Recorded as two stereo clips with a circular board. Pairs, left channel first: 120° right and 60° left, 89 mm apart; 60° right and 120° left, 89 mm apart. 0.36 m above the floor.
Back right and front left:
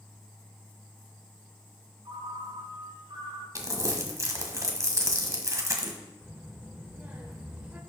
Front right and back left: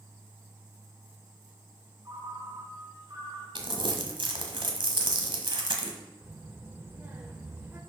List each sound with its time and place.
2.0 s a ringtone: 80° left, 1.7 m
3.5 s crumpling: 110° left, 1.3 m
6.2 s a child speaking: 100° left, 0.9 m